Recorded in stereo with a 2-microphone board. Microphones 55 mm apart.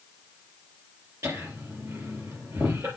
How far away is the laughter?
About 3 m.